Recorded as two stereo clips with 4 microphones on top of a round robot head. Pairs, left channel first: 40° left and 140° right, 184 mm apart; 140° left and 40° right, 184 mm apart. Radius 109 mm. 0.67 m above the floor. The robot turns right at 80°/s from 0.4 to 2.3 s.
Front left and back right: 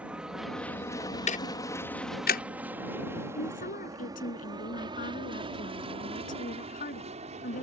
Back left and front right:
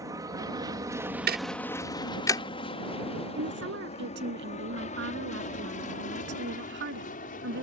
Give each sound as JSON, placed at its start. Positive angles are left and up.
{"t": 0.0, "sound": "an aircraft", "azimuth_deg": -70}
{"t": 1.3, "sound": "ticking", "azimuth_deg": -10}
{"t": 3.4, "sound": "a woman speaking", "azimuth_deg": -10}